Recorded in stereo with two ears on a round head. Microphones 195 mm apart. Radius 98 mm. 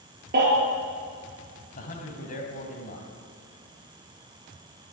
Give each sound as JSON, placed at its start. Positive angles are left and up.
{"t": 0.3, "sound": "a baby crying", "side_deg": -45, "distance_m": 5.0}
{"t": 1.8, "sound": "a man speaking", "side_deg": 35, "distance_m": 2.5}